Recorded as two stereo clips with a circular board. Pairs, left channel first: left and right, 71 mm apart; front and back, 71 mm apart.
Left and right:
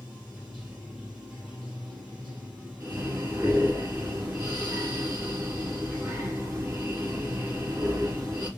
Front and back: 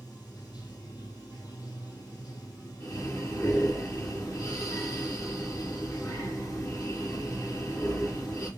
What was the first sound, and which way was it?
Running water, 20° right.